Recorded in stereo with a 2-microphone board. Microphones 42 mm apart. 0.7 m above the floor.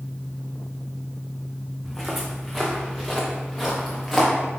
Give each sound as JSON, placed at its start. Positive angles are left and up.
{"t": 1.8, "sound": "footsteps", "side_deg": -10, "distance_m": 2.5}